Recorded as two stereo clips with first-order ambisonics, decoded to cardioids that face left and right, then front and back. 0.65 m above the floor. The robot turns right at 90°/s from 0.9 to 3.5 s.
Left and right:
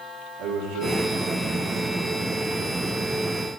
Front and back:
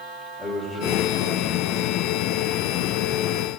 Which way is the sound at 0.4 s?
80° right.